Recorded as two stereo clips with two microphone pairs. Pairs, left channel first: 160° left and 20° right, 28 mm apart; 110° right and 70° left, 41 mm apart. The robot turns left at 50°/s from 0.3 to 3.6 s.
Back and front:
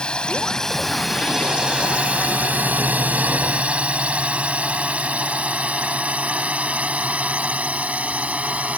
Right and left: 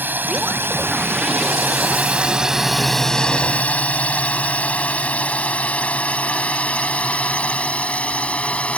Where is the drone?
105° left; by 8.8 s 55° right.